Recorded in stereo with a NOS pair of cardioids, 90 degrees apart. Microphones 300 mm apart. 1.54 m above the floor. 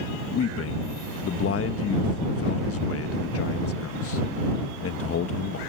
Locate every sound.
0.3 s a man speaking: 50° left